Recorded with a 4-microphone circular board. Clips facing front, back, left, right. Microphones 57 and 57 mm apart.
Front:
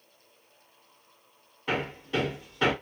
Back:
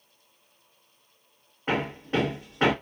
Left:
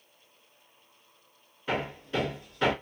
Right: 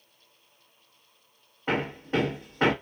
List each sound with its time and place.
1.7 s hammering: 130° right, 1.3 m